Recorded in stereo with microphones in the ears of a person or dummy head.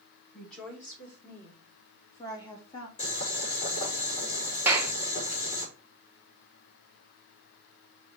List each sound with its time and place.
0.3 s a woman speaking: 5° right (ahead or behind), 5 m; by 2.9 s 20° left (ahead or behind), 3.5 m
3.0 s boiling: 30° left (ahead or behind), 4 m
4.7 s a clap: 10° right (ahead or behind), 1.0 m